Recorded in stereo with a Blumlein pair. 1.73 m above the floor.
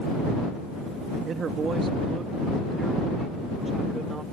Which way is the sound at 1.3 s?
25° right.